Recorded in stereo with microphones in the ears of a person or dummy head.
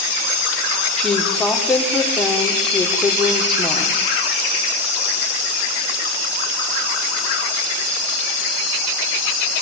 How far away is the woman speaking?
About 5 m.